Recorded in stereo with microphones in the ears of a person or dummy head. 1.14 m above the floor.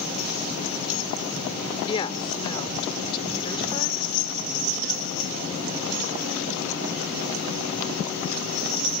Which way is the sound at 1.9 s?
25° left (ahead or behind).